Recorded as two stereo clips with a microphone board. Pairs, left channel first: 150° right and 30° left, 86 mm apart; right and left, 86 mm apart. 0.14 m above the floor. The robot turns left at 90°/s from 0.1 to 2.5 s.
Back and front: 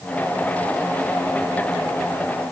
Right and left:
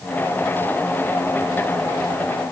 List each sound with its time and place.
Only background noise.